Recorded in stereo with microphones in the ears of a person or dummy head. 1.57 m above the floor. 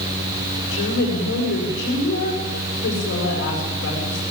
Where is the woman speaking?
50° left (ahead or behind), 7.5 m.